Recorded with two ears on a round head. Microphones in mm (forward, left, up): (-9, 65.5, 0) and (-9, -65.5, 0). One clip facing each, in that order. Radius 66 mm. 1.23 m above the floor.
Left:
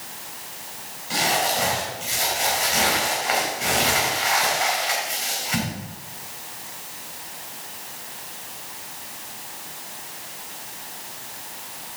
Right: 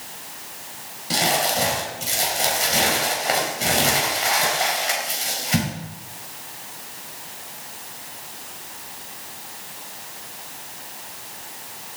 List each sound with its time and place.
1.1 s crumpling: 45° right (ahead or behind), 4 m